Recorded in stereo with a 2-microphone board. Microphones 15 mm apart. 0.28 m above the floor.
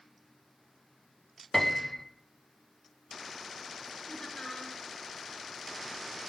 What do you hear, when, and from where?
1.5 s a piano: 25° left (ahead or behind), 0.7 m
4.1 s laughter: 65° left (ahead or behind), 4.5 m